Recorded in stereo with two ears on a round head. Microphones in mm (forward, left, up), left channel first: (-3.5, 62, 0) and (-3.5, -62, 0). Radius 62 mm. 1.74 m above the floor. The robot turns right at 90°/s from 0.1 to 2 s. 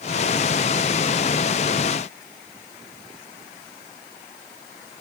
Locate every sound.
Only background noise.